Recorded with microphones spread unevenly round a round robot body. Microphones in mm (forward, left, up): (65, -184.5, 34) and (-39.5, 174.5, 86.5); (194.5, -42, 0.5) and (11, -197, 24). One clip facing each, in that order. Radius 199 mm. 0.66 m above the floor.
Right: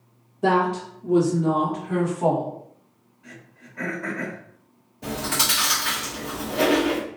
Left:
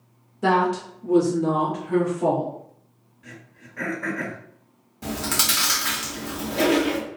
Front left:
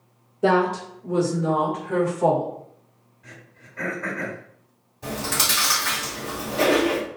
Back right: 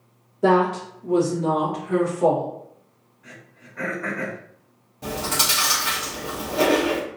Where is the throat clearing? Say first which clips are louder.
Left 1 dB, back right 2 dB; 130° left, 1.5 m.